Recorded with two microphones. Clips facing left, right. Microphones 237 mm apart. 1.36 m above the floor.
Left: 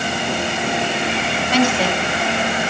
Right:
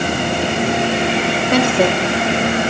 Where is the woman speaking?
50° right (ahead or behind), 2.5 m.